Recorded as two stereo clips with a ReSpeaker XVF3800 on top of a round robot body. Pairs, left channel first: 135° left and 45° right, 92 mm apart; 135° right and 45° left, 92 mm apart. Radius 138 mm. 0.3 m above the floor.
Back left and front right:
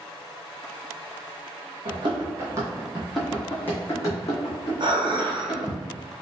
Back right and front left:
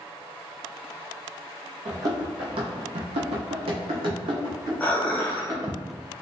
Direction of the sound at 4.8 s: 60° right.